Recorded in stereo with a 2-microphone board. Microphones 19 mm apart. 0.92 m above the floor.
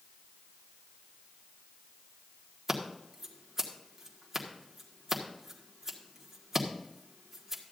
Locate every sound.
2.7 s scissors: 15° right (ahead or behind), 1.6 m